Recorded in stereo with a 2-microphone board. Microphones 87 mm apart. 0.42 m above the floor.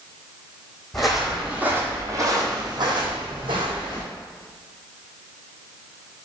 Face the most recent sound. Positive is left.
turn(degrees=-80)